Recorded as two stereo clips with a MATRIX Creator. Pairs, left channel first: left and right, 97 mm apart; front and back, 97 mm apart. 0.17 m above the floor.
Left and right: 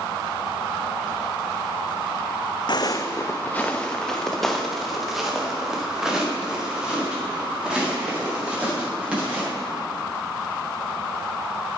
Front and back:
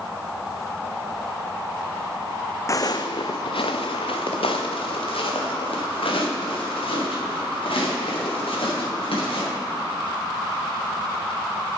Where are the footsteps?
55° left, 0.7 m; by 9.5 s 15° right, 5.5 m.